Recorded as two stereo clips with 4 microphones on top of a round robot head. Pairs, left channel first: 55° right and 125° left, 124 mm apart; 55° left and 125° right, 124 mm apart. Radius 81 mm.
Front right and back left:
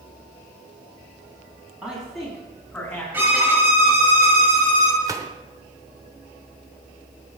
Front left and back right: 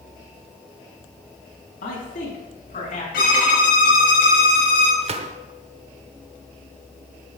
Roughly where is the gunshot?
Behind.